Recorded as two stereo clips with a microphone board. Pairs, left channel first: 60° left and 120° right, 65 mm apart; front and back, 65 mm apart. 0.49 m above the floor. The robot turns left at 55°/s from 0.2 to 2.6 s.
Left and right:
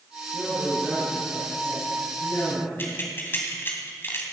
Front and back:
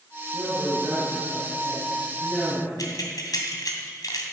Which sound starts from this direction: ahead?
Keys jangling, at 2.8 s.